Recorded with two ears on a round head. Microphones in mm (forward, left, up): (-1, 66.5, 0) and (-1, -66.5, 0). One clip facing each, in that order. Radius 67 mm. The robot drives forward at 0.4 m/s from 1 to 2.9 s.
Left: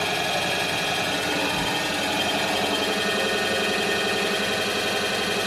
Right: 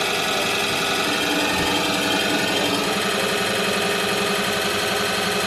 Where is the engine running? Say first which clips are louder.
Right 2 dB; 70° right (ahead or behind), 2.5 m; by 5.5 s 60° right (ahead or behind), 3 m.